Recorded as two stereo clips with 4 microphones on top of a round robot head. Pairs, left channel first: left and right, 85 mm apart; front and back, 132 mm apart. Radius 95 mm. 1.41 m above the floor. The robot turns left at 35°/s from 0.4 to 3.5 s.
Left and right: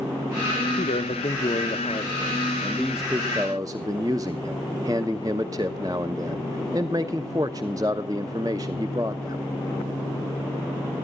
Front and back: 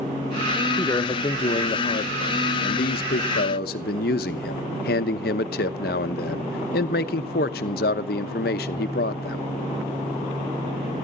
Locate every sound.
0.8 s a man speaking: 75° left, 0.8 m; by 9.4 s 25° right, 0.8 m